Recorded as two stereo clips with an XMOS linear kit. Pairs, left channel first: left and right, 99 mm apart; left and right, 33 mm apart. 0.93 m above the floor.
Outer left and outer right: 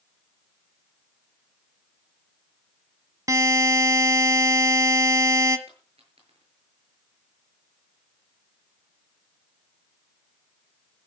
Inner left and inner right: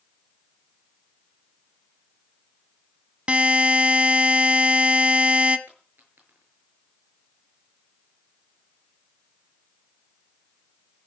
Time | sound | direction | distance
3.3 | a buzzer | 35° right (ahead or behind) | 1.2 m
5.7 | a dropped coin | 85° right | 7 m